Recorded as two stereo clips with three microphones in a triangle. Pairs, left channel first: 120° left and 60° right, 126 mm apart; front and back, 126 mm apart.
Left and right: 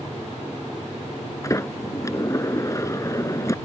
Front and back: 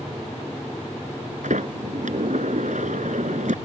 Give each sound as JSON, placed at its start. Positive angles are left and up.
{"t": 1.4, "sound": "a sliding door", "azimuth_deg": -175}